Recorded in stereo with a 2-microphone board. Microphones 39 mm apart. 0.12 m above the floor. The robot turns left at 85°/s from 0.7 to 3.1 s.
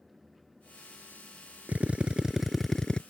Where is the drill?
105° right; by 3.0 s 140° left.